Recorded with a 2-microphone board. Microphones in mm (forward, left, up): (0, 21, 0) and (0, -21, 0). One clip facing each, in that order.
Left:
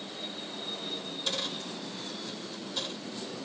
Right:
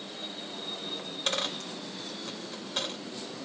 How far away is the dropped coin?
About 1.0 m.